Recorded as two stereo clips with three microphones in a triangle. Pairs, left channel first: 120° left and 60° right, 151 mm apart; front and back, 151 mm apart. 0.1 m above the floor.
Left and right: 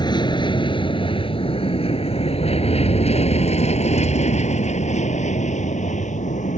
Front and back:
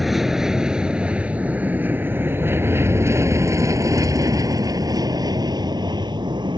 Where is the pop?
No pop in this recording.